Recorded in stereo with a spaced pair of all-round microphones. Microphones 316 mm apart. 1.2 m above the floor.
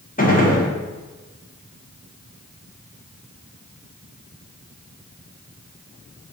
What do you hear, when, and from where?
0.2 s a gunshot: 25° left (ahead or behind), 0.8 m